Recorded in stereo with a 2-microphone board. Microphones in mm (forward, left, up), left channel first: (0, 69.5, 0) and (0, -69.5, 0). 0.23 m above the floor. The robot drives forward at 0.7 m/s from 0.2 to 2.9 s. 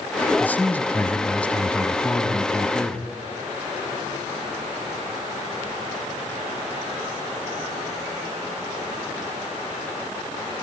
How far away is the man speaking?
About 1.1 m.